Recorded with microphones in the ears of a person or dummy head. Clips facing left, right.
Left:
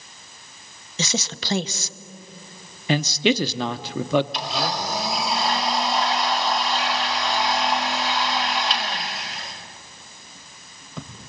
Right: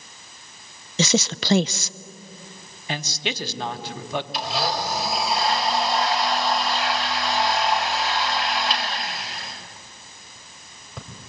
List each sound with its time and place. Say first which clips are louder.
1.0 s a woman speaking: right 6 dB; 50° right (ahead or behind), 0.6 m
2.9 s a man speaking: left 10 dB; 65° left (ahead or behind), 0.9 m
4.3 s a blender: right 1 dB; centre (ahead or behind), 3 m